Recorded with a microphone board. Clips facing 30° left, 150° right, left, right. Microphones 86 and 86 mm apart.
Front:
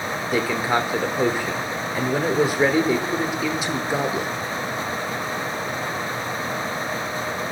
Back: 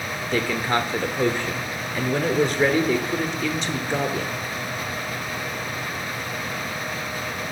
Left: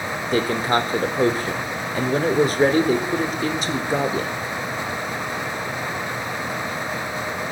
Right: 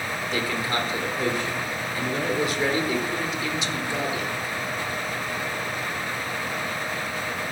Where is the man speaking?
110° left, 1.1 m.